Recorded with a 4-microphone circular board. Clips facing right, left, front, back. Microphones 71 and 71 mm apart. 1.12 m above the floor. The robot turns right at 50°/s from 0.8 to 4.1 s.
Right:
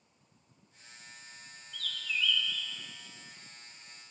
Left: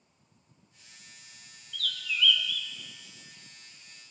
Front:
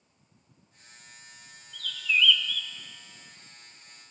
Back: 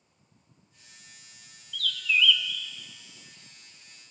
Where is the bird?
65° left, 0.7 m; by 2.7 s 110° left, 0.7 m.